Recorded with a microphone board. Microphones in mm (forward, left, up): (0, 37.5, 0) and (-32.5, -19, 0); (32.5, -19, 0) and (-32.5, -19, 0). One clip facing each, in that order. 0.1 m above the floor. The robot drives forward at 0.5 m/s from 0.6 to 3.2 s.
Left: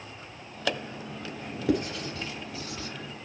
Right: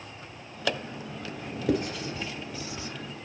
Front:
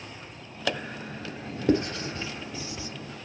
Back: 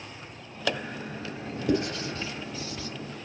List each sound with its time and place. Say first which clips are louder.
1.7 s writing: even, front 2 dB; 30° right, 1.7 m; by 2.9 s 60° right, 1.4 m